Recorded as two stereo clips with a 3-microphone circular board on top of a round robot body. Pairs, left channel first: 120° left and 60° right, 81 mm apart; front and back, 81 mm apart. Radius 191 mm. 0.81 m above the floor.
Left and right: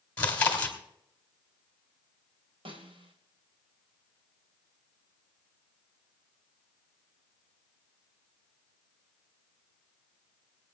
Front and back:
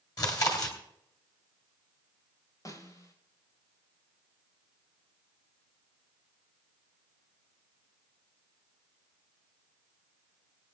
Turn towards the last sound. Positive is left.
turn(degrees=-50)